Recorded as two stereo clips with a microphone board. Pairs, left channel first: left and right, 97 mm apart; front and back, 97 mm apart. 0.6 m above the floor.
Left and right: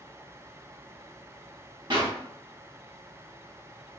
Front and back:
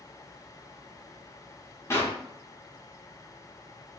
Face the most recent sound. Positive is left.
turn(degrees=-60)